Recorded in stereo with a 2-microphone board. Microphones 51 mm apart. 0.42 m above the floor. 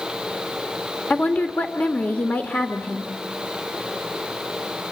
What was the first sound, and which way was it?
A woman speaking, 25° left (ahead or behind).